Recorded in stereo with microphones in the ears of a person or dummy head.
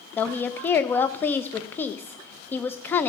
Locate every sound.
0.2 s a woman speaking: 15° left (ahead or behind), 0.5 m